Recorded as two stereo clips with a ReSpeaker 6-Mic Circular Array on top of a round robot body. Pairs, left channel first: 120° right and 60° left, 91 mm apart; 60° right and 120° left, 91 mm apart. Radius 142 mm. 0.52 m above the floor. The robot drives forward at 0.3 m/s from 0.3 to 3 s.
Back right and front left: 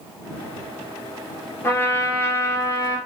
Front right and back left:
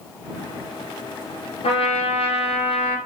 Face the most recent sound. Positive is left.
turn(degrees=-60)